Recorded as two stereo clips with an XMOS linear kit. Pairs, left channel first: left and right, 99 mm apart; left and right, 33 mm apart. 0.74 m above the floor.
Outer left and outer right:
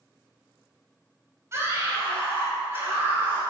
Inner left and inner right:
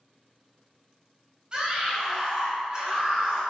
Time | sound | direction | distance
1.5 | a scream | 30° right (ahead or behind) | 4.5 m